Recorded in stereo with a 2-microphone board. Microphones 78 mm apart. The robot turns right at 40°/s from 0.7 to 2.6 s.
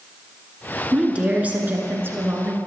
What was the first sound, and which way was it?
A woman speaking, 155° right.